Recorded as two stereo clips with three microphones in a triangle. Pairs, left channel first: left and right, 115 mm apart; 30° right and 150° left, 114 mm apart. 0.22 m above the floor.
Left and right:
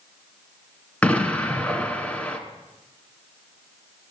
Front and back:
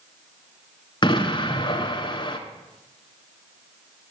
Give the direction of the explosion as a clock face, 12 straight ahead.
12 o'clock.